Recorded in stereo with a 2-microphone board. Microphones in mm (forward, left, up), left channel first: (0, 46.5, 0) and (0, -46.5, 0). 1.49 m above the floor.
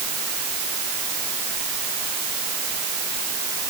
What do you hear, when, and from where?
Only background noise.